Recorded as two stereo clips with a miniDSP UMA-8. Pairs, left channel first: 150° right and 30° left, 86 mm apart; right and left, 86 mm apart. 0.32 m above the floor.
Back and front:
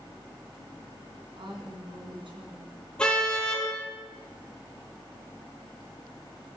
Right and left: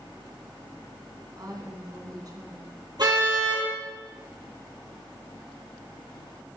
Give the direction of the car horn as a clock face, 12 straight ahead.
8 o'clock.